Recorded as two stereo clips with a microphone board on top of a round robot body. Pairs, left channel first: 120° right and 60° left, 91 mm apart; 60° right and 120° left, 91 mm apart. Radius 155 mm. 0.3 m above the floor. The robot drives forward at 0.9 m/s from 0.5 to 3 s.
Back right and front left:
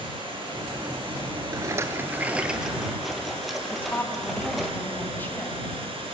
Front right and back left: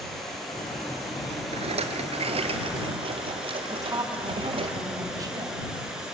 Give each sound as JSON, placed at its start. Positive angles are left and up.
{"t": 0.0, "sound": "running water", "azimuth_deg": 30, "distance_m": 8.0}
{"t": 1.5, "sound": "a rattle", "azimuth_deg": 115, "distance_m": 1.2}
{"t": 3.7, "sound": "a woman speaking", "azimuth_deg": 170, "distance_m": 3.5}